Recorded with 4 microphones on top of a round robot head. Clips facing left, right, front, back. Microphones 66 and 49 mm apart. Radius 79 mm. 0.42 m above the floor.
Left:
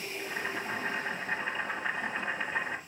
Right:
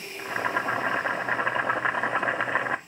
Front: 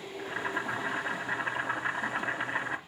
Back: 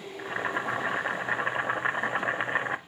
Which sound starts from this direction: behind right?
Boiling, at 0.2 s.